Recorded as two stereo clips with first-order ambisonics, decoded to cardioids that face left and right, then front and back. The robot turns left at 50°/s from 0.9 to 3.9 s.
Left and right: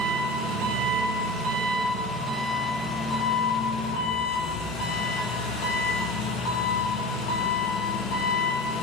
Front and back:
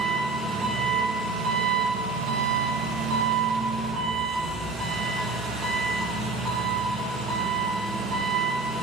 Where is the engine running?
95° right, 2.5 m; by 8.8 s 115° left, 2.5 m.